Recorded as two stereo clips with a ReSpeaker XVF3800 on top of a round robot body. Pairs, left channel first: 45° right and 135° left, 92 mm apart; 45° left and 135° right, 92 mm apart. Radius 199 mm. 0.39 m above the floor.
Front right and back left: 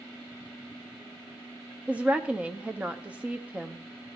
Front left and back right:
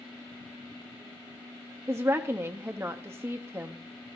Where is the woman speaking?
165° right, 1.0 m.